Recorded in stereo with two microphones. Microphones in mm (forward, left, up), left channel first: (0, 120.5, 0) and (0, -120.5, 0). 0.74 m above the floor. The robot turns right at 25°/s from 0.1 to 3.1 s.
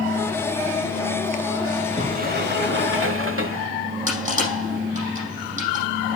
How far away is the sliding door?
About 1.4 m.